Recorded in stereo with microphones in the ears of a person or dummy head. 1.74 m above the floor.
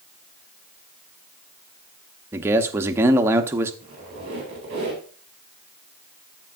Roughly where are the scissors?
No scissors in this recording.